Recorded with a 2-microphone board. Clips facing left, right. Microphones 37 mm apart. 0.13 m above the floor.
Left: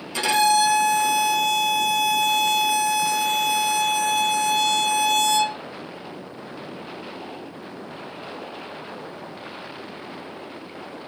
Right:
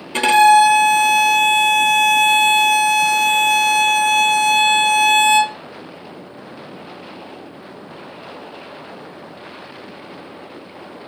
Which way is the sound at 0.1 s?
50° right (ahead or behind).